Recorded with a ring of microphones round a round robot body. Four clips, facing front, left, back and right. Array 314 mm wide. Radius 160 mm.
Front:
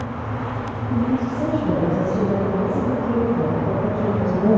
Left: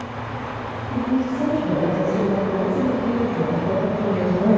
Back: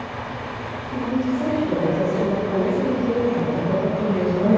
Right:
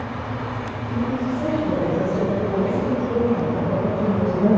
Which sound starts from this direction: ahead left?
A woman speaking, at 0.9 s.